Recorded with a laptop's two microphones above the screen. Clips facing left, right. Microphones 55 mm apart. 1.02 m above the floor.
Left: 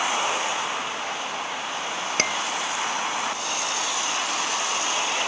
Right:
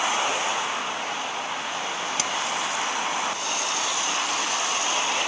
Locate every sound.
2.2 s dishes clattering: 55° left (ahead or behind)